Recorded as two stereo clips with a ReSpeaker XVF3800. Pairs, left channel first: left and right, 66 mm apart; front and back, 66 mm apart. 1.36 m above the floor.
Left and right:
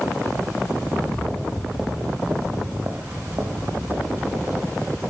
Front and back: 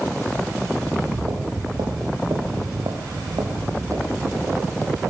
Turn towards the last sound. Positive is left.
turn(degrees=-135)